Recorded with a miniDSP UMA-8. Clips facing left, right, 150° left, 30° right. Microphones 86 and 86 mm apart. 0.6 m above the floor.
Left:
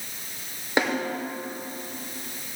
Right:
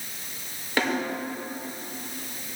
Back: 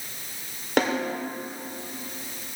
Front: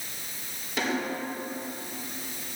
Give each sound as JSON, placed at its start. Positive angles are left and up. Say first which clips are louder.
{"t": 0.8, "sound": "a snare drum", "louder": "left 1 dB, back 5 dB", "azimuth_deg": 155, "distance_m": 2.5}